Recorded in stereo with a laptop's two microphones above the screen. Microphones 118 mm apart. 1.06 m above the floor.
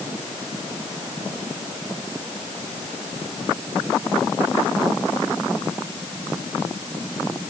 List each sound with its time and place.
Only background noise.